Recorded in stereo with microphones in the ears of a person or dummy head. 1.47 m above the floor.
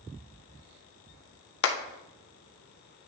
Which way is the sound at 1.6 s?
70° left (ahead or behind).